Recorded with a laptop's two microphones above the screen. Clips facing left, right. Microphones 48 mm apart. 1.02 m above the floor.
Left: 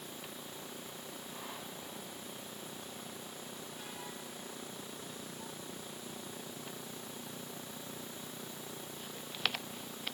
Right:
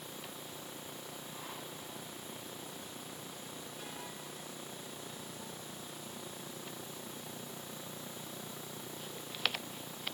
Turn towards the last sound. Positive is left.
No sound to turn to.